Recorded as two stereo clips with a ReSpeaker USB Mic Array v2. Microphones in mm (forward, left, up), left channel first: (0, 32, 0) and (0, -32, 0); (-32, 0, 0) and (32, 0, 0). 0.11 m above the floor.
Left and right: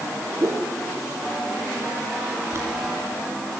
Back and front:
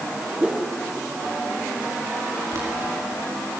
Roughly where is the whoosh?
Right.